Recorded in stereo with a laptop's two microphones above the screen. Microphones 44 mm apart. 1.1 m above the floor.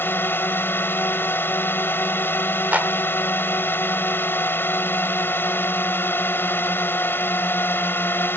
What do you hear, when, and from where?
0.0 s a drone: 60° left (ahead or behind)
2.7 s a clap: 35° right (ahead or behind)